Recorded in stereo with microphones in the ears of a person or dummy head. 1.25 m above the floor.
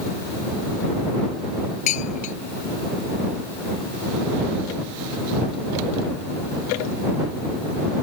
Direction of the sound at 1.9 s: 45° left (ahead or behind).